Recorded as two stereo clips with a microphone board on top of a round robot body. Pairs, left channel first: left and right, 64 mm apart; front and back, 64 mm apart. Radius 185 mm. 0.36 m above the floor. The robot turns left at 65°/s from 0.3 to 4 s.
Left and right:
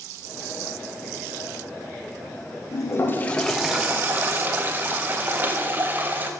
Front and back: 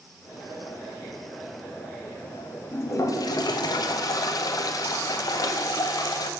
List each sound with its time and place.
2.7 s a toilet flushing: 55° left, 0.5 m; by 6.3 s 30° right, 0.5 m